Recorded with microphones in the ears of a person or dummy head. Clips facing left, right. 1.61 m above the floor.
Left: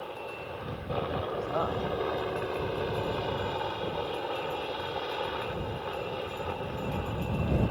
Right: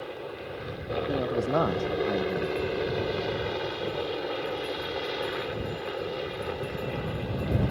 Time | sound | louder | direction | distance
0.0 | a helicopter | right 2 dB | 25° right (ahead or behind) | ?
1.1 | a man speaking | right 6 dB | 45° right (ahead or behind) | ?